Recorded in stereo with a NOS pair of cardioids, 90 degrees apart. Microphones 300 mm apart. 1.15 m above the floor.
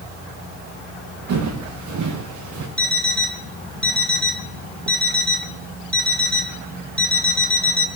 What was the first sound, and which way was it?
Footsteps, 70° right.